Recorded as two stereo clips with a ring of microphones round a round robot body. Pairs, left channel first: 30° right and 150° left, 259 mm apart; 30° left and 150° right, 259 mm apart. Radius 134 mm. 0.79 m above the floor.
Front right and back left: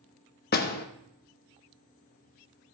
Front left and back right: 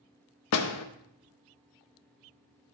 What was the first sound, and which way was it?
A door slam, 20° left.